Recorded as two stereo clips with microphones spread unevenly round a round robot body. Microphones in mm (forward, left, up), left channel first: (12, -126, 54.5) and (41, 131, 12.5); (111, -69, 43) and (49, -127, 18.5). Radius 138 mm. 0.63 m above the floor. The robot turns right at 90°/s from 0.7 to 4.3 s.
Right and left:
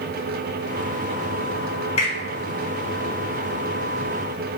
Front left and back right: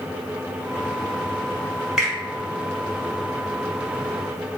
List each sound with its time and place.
2.0 s a finger snap: 155° right, 1.0 m; by 2.1 s 140° right, 1.0 m